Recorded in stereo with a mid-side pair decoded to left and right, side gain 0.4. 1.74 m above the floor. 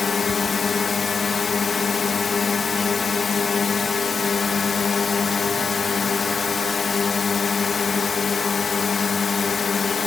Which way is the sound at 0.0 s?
40° left.